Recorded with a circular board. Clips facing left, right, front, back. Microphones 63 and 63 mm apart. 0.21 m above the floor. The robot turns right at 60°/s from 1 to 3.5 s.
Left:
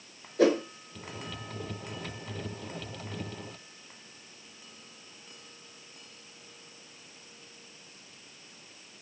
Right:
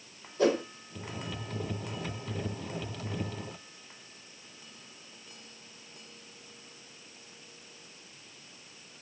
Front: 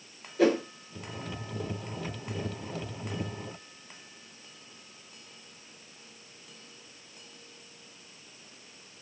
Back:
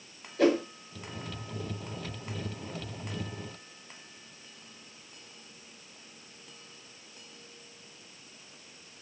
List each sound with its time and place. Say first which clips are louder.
0.4 s a whoosh: left 3 dB, even; 90° left, 0.9 m